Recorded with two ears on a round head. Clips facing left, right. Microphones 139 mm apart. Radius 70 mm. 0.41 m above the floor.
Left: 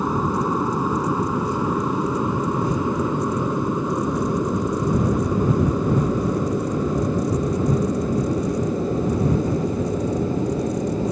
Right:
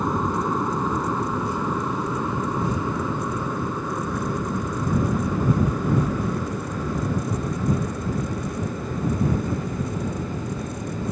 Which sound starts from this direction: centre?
An aircraft, at 0.0 s.